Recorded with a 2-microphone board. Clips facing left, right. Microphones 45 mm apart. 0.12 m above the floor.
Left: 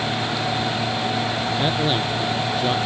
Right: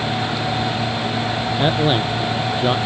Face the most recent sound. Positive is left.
turn(degrees=-25)  # may be behind; listen again after turning